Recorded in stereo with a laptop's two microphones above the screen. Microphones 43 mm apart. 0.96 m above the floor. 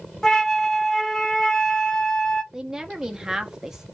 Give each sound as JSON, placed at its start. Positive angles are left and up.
{"t": 0.2, "sound": "a flute", "side_deg": 15, "distance_m": 0.6}
{"t": 2.5, "sound": "a woman speaking", "side_deg": -15, "distance_m": 0.7}